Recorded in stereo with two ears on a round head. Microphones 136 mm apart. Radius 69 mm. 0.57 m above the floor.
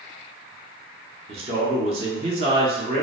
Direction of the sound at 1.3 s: 40° right (ahead or behind).